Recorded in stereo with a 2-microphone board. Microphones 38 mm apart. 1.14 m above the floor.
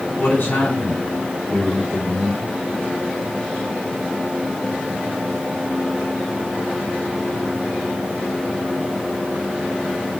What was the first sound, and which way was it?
A man speaking, 80° left.